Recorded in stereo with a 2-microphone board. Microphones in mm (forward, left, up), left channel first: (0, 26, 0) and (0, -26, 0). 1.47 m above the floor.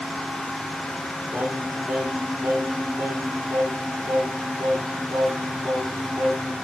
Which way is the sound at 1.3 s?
55° right (ahead or behind).